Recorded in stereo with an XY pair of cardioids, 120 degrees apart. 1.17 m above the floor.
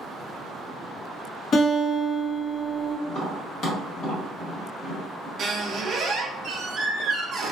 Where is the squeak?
45° right, 0.6 m.